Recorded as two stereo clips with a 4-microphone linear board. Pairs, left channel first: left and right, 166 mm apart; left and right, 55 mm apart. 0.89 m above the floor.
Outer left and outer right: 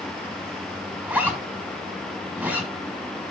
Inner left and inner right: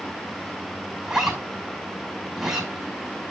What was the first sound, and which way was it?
A zipper, 10° right (ahead or behind).